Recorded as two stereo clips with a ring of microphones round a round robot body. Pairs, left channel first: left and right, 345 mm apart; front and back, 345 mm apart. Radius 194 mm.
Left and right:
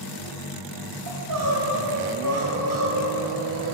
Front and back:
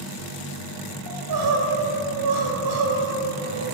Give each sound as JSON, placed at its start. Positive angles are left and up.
{"t": 1.1, "sound": "crying", "azimuth_deg": -140, "distance_m": 2.0}